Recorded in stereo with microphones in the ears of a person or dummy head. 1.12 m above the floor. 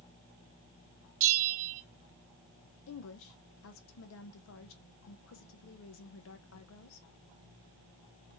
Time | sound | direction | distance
1.2 | a bell | 55° right (ahead or behind) | 0.9 m
2.9 | a woman speaking | 65° left (ahead or behind) | 0.7 m